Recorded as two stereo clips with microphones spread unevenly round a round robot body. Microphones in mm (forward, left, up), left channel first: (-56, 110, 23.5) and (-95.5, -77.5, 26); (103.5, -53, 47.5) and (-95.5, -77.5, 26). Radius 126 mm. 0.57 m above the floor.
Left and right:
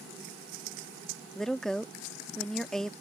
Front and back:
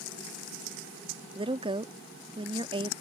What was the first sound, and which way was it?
A woman speaking, 160° left.